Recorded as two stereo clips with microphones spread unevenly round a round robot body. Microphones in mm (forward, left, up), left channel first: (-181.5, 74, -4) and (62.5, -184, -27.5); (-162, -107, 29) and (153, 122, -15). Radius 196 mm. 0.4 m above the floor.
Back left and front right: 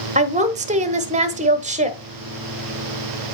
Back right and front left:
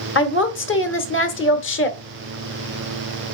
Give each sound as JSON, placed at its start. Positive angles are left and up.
{"t": 0.1, "sound": "a woman speaking", "azimuth_deg": -95, "distance_m": 1.0}